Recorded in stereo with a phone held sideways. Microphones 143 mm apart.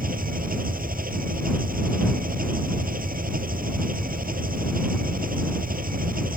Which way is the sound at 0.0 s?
85° right.